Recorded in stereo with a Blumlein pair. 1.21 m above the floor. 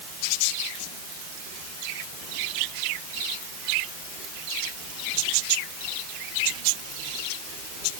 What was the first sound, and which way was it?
Only background noise.